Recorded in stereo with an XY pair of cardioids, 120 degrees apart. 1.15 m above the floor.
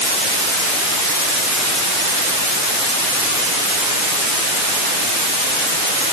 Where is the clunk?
I don't hear a clunk.